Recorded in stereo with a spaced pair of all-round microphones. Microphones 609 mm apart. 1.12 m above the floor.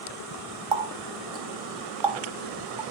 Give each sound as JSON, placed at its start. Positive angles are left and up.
{"t": 0.7, "sound": "a running tap", "side_deg": -50, "distance_m": 0.7}